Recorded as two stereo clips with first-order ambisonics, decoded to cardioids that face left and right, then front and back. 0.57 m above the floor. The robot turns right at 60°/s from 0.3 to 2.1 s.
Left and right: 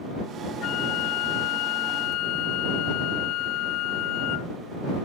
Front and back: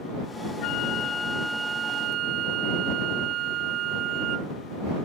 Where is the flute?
40° left; by 4.5 s 130° left.